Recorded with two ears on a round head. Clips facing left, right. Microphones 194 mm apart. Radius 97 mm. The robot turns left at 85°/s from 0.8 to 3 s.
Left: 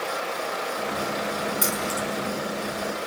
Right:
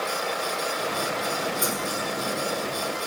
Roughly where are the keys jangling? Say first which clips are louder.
Left 1 dB; left.